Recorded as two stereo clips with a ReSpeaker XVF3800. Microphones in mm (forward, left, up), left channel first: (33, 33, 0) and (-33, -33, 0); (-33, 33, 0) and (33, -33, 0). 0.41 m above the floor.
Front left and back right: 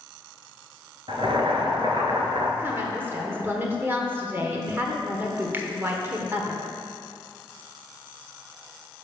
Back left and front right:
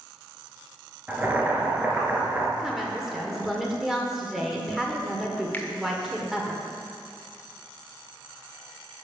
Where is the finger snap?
175° right, 0.9 m.